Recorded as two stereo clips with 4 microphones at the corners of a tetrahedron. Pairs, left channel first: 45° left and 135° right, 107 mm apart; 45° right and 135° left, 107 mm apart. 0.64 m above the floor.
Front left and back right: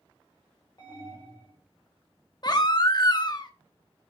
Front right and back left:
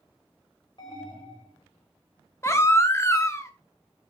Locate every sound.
0.8 s an alarm: 5° right, 3 m
2.4 s a baby crying: 10° left, 0.8 m